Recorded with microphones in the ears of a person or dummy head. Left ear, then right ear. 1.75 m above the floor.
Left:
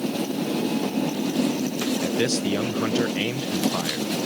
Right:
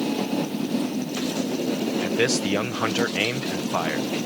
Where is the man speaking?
25° right (ahead or behind).